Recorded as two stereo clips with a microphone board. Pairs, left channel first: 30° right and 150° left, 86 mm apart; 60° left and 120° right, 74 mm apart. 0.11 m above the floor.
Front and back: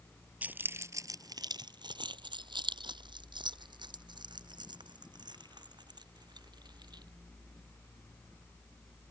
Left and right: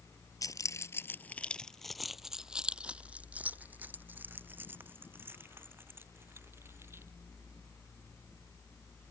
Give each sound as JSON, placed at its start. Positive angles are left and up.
{"t": 0.4, "sound": "keys jangling", "azimuth_deg": 80}